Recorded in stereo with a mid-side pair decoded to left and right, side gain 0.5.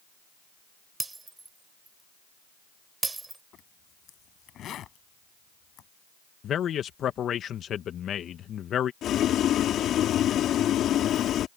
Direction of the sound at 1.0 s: 20° right.